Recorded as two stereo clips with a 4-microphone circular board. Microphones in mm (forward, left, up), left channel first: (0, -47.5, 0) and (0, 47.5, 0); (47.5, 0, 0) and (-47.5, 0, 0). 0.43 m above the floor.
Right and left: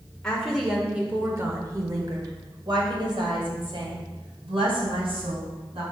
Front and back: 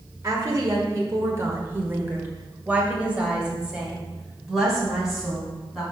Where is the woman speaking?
165° right, 1.4 m; by 5.8 s 90° left, 4 m.